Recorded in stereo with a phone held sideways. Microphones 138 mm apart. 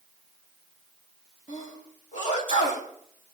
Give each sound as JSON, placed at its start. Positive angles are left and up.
{"t": 1.5, "sound": "a sneeze", "side_deg": 70, "distance_m": 3.5}